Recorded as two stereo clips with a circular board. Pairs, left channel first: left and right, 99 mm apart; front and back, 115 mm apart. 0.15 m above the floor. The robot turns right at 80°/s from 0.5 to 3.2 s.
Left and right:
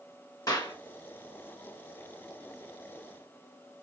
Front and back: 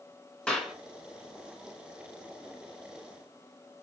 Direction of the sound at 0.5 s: 80° left.